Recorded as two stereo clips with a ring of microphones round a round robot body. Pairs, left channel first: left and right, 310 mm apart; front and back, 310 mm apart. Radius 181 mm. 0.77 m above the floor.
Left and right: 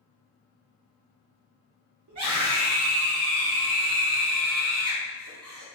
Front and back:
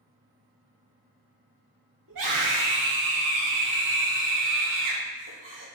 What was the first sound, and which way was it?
A scream, 130° right.